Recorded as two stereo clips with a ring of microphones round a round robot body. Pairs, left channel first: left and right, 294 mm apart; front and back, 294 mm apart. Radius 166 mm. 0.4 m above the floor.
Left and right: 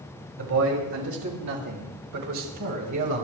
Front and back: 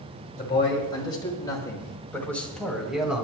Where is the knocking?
No knocking in this recording.